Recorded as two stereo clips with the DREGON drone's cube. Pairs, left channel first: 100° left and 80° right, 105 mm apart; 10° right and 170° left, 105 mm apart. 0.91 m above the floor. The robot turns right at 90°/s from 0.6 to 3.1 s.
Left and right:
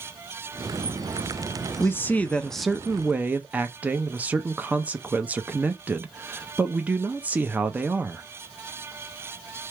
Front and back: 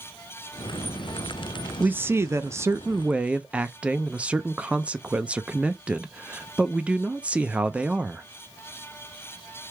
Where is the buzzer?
I don't hear a buzzer.